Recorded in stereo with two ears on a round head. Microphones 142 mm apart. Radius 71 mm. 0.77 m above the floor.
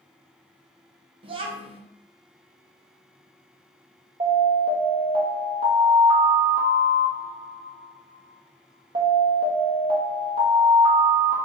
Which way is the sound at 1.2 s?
35° right (ahead or behind).